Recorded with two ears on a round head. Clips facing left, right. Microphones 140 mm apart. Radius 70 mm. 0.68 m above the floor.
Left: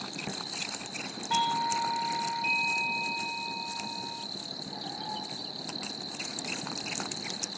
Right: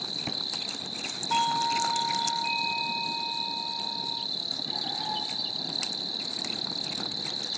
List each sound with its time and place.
0.0 s an insect: 45° right (ahead or behind)
1.3 s a doorbell: 30° left (ahead or behind)